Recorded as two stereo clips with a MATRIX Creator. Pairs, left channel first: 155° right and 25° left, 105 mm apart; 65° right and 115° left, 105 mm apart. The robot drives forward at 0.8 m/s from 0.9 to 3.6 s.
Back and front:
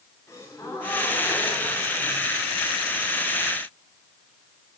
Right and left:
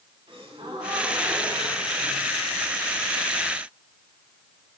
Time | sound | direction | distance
0.3 | a gasp | 140° left | 5 m